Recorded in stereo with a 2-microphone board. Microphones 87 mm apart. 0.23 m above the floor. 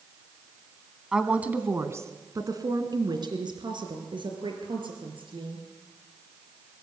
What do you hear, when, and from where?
1.1 s a woman speaking: 5° right (ahead or behind), 1.9 m; by 5.7 s 75° right (ahead or behind), 5.5 m